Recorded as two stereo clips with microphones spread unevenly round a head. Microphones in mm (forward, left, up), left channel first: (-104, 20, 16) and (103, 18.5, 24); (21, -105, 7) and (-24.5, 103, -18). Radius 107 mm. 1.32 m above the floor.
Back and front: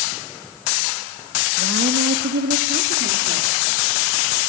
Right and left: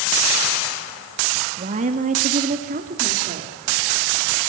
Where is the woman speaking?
40° left, 2 m; by 3.5 s 45° left, 3.5 m.